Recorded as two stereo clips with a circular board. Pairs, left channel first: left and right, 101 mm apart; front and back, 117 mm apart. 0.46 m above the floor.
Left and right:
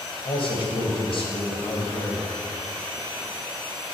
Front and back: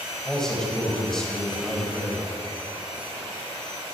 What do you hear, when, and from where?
0.2 s a man speaking: 85° left, 2 m